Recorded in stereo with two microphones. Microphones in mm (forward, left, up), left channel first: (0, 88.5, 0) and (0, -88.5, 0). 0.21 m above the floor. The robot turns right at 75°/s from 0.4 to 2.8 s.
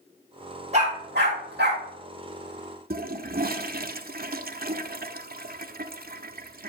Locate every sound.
0.7 s a dog barking: 40° right (ahead or behind), 3 m; by 1.8 s 60° right (ahead or behind), 3 m
2.9 s a toilet flushing: 60° right (ahead or behind), 0.5 m